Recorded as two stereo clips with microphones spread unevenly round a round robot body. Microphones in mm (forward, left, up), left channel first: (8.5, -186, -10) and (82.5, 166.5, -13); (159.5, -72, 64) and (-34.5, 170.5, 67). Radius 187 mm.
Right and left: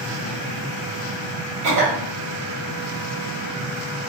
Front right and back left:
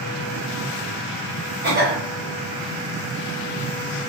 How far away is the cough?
About 1.6 m.